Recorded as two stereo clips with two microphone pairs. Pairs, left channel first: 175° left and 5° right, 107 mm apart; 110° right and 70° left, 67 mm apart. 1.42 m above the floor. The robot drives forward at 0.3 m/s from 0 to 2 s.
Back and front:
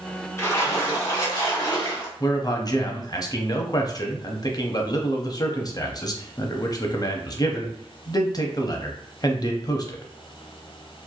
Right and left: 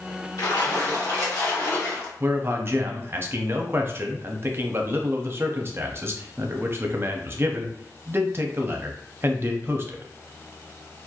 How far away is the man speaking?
About 0.5 m.